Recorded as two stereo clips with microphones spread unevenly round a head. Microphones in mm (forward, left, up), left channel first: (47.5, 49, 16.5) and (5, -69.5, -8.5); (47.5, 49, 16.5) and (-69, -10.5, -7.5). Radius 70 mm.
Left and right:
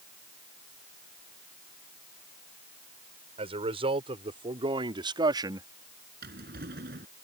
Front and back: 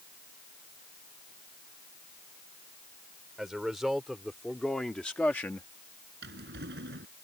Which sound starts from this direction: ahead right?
A man speaking, at 3.4 s.